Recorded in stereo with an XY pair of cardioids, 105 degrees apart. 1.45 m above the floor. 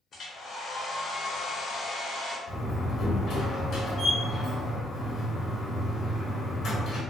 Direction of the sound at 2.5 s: 55° left.